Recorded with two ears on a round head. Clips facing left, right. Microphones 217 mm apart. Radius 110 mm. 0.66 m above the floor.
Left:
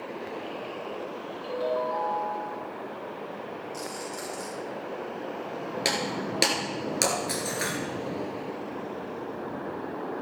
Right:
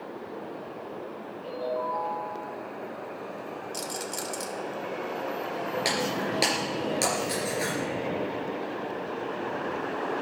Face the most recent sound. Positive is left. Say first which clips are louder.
# even
turn(degrees=15)  # may be behind; listen again after turning